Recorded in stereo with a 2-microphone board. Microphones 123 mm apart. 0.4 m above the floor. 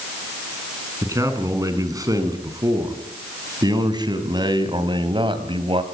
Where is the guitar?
I don't hear a guitar.